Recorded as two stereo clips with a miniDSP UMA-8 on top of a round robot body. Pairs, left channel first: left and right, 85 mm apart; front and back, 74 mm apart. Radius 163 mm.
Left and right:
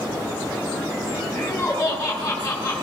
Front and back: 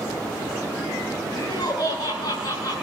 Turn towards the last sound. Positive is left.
turn(degrees=15)